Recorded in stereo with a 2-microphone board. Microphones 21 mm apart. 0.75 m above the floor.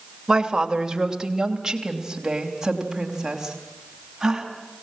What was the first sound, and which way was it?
A woman speaking, 30° right (ahead or behind).